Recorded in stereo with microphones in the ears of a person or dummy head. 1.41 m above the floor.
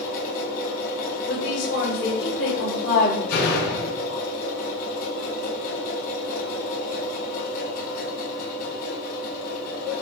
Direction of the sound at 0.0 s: 40° left (ahead or behind).